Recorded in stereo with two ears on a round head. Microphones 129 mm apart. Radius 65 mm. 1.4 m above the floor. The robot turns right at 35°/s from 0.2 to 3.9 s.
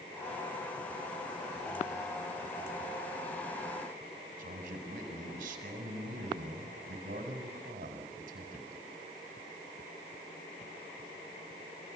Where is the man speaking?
70° right (ahead or behind), 6 m.